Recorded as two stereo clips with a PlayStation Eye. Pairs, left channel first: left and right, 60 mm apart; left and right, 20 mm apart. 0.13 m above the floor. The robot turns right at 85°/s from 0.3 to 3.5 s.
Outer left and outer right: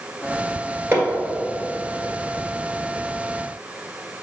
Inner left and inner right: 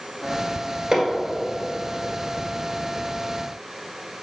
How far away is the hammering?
About 1.9 m.